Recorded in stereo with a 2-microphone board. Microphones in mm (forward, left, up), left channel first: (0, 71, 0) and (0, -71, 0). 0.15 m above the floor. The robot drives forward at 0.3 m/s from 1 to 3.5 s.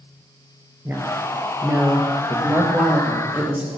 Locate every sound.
0.8 s a woman speaking: 15° right (ahead or behind), 2.5 m